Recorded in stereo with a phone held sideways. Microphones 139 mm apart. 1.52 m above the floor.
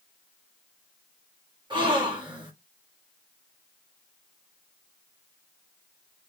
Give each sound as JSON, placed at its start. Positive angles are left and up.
{"t": 1.7, "sound": "a gasp", "side_deg": -30, "distance_m": 1.3}